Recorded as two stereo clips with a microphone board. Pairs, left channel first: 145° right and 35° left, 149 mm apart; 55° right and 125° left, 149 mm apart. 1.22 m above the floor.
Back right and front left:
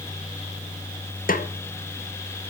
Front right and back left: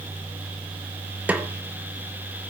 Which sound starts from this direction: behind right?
A snare drum, at 1.3 s.